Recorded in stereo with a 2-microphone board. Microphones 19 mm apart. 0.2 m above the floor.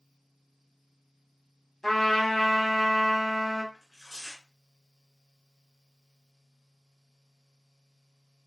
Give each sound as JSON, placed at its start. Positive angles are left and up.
{"t": 1.8, "sound": "a trumpet", "side_deg": 25, "distance_m": 1.0}
{"t": 3.7, "sound": "tearing paper", "side_deg": -35, "distance_m": 1.6}